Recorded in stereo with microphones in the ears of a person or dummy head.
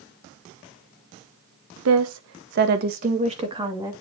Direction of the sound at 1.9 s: 75° right (ahead or behind).